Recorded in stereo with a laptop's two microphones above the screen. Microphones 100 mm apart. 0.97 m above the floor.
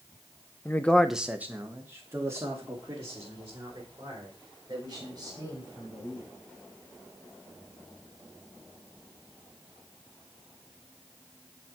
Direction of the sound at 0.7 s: 25° left (ahead or behind).